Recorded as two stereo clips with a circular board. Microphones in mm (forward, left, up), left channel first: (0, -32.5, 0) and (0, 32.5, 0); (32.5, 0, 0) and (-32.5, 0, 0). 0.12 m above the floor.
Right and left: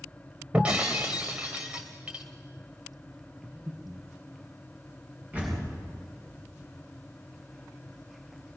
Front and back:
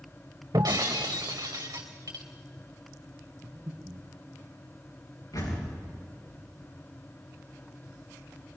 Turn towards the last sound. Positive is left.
turn(degrees=25)